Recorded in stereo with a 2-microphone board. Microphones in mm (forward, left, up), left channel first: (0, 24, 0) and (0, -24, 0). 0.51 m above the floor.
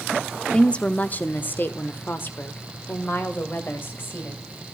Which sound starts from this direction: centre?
A woman speaking, at 0.5 s.